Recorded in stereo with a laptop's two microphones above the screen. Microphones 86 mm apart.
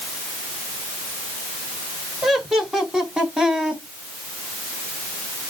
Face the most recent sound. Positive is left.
turn(degrees=-10)  # may be behind; listen again after turning